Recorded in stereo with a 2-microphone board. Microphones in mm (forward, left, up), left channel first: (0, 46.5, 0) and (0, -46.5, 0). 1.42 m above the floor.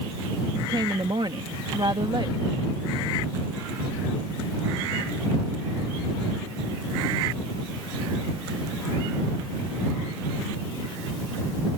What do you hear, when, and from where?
0.6 s a woman speaking: 50° right (ahead or behind)